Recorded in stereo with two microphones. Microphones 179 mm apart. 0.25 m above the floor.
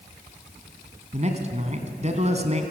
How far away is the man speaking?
About 2.5 m.